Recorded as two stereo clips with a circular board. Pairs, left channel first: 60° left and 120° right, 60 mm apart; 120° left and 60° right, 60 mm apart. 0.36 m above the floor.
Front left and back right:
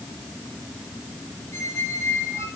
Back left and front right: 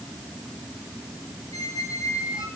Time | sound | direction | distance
1.5 | a squeak | 100° left | 3 m